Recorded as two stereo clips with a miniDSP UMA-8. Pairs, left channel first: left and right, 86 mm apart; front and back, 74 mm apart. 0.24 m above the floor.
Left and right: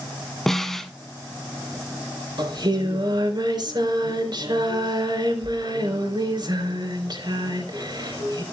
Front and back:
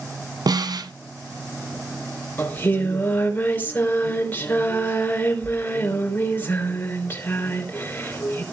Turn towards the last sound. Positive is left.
turn(degrees=-60)